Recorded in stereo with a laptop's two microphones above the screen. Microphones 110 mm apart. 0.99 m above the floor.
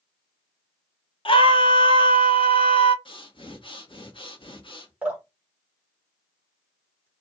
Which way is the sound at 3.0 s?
50° left (ahead or behind).